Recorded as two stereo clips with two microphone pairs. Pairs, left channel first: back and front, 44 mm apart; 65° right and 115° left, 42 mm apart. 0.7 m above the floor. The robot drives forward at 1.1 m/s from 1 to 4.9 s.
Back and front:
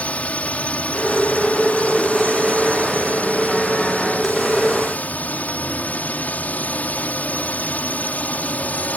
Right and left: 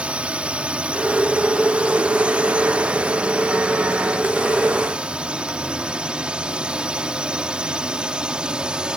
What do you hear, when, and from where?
0.0 s a drone: 150° left; by 9.0 s 170° left